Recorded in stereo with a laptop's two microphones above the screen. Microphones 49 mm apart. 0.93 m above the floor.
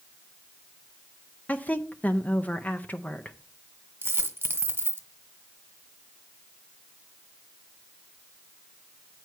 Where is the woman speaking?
35° left (ahead or behind), 0.6 m.